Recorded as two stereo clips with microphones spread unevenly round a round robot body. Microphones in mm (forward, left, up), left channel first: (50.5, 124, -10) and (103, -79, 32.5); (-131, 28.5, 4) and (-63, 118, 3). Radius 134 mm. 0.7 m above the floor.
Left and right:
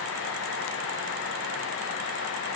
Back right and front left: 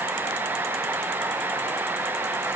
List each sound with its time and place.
Only background noise.